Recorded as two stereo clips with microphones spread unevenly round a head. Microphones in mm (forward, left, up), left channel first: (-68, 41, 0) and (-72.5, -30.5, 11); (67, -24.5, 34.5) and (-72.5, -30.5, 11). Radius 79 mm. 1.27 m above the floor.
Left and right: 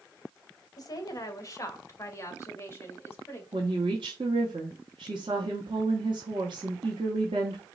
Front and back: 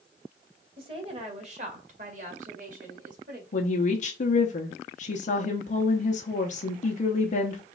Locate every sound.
0.8 s a woman speaking: 120° left, 1.2 m; by 3.4 s 145° left, 2.5 m
3.5 s a woman speaking: 35° right, 0.7 m